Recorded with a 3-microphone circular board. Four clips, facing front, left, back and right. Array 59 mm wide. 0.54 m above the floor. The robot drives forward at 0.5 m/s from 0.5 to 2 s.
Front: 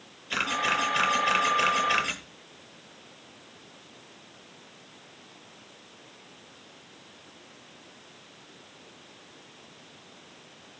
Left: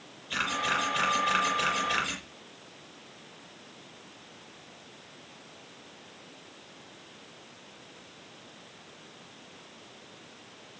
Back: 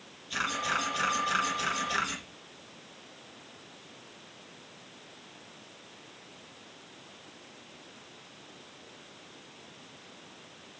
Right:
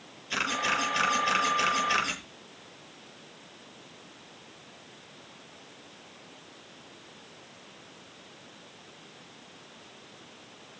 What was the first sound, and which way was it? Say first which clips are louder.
A camera shutter: even, front 4 dB; 15° right.